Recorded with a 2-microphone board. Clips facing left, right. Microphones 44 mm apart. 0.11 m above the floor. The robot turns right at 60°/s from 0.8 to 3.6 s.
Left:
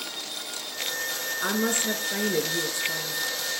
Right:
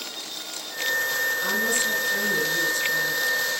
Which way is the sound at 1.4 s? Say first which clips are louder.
Right 3 dB; 60° left.